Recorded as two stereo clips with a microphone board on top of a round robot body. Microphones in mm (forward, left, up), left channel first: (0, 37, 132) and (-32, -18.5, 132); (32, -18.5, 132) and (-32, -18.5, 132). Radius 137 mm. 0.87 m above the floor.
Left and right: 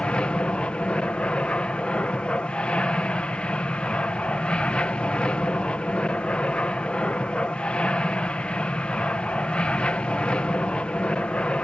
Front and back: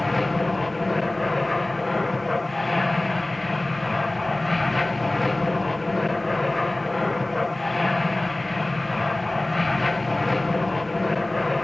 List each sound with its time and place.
0.0 s an aircraft: 85° left